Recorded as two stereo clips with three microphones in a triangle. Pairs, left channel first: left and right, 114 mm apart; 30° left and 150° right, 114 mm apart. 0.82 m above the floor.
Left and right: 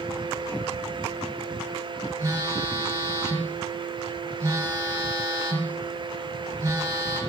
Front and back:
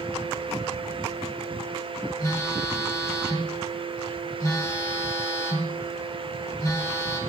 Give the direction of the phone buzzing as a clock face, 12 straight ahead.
1 o'clock.